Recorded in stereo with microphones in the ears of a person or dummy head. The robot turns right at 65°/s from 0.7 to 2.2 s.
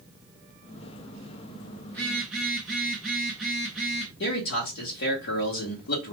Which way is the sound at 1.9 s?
10° left (ahead or behind).